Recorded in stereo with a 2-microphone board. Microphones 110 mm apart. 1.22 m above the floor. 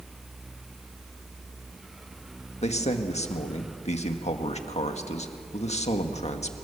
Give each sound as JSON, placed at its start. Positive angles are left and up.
{"t": 2.6, "sound": "a man speaking", "side_deg": 80, "distance_m": 1.8}